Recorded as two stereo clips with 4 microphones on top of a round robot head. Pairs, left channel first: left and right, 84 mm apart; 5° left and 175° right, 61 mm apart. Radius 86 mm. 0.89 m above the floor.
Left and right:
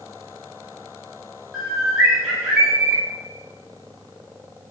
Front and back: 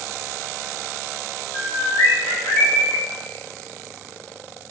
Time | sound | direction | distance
1.5 | a bird | 5° right | 1.5 m